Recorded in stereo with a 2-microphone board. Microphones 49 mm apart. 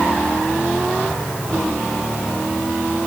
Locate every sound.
Only background noise.